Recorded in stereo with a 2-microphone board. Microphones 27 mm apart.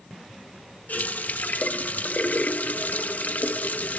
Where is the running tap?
65° left (ahead or behind), 1.1 m.